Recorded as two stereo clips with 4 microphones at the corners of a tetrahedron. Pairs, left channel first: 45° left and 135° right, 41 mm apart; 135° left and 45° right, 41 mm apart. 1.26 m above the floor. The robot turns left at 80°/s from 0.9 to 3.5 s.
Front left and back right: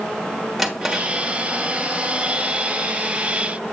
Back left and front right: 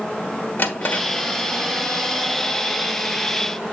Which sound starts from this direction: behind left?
A drawer, at 0.6 s.